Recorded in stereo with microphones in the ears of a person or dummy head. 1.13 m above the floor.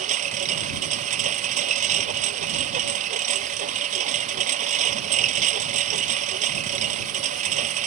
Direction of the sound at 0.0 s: 40° right (ahead or behind).